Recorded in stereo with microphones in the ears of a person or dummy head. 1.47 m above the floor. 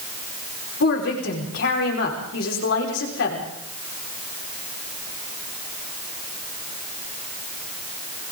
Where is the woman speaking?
75° left (ahead or behind), 5 m.